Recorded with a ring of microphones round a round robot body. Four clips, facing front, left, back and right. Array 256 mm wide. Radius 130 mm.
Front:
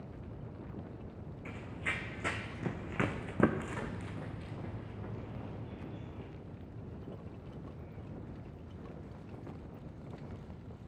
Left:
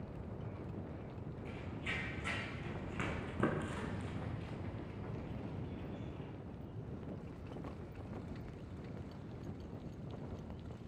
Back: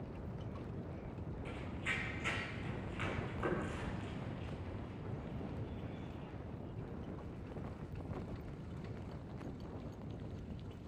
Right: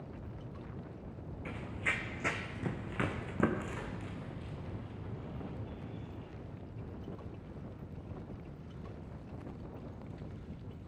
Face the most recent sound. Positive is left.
turn(degrees=20)